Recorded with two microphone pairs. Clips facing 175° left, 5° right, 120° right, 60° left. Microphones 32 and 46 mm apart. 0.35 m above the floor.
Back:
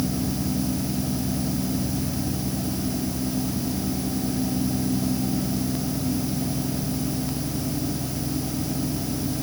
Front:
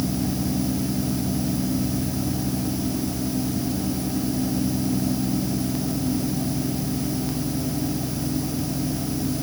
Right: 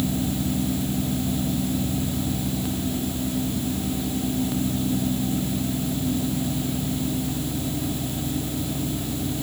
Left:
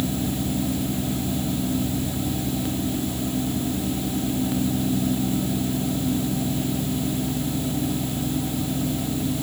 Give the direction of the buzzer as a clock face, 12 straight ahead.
No buzzer in this recording.